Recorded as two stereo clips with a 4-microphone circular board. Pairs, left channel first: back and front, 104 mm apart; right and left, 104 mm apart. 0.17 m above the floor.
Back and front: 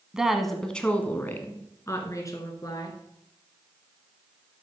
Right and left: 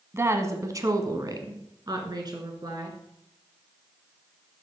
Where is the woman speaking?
75° left, 1.2 m; by 3.0 s 135° left, 2.5 m.